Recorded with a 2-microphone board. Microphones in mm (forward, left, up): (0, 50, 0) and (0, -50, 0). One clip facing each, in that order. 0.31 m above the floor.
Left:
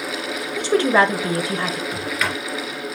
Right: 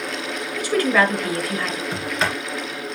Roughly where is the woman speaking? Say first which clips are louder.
Left 2 dB; left.